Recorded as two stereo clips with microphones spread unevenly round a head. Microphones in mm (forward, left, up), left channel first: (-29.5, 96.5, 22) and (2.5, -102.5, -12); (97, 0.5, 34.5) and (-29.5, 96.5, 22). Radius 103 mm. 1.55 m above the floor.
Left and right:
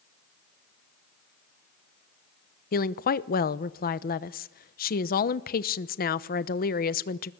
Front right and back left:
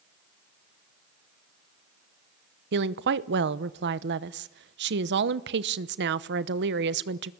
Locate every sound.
2.7 s a woman speaking: 140° left, 0.9 m